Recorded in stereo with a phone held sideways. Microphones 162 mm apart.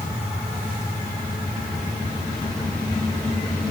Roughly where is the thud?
I don't hear a thud.